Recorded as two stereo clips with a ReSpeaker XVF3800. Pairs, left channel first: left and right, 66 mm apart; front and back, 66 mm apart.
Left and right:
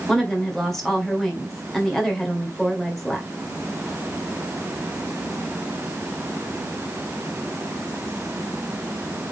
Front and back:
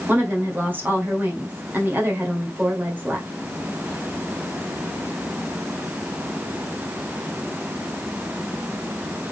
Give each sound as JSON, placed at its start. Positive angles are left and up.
{"t": 0.1, "sound": "a woman speaking", "azimuth_deg": 170, "distance_m": 1.5}